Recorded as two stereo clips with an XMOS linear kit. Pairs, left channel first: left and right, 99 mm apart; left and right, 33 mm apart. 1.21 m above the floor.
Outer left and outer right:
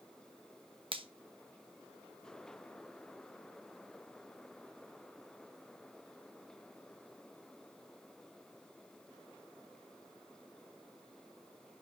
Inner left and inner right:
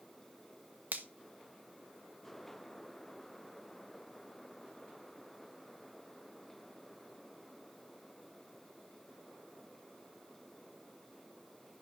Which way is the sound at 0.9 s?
60° right (ahead or behind).